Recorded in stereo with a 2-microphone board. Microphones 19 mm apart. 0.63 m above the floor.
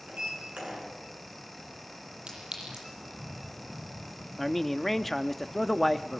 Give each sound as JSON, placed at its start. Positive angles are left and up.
{"t": 0.1, "sound": "a sliding door", "side_deg": -75, "distance_m": 8.0}
{"t": 2.3, "sound": "a clink", "side_deg": -60, "distance_m": 9.5}
{"t": 4.4, "sound": "a man speaking", "side_deg": 5, "distance_m": 0.8}